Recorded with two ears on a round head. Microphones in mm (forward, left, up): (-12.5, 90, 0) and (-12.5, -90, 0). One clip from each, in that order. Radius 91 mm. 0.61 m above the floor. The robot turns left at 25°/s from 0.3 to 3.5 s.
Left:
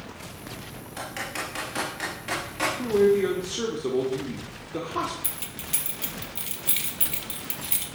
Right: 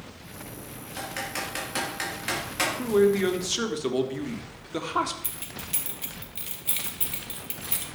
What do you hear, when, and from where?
1.0 s typing on a keyboard: 5° right (ahead or behind), 4.5 m; by 2.7 s 50° right (ahead or behind), 4.5 m
2.8 s a man speaking: 45° right (ahead or behind), 1.9 m; by 5.1 s 55° right (ahead or behind), 1.9 m
5.2 s keys jangling: 5° left (ahead or behind), 1.2 m